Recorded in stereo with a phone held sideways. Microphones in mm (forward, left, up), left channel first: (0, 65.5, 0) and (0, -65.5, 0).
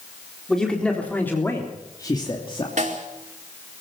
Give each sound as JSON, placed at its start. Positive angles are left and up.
{"t": 0.5, "sound": "a man speaking", "side_deg": 5, "distance_m": 4.0}
{"t": 2.8, "sound": "a snare drum", "side_deg": -70, "distance_m": 4.0}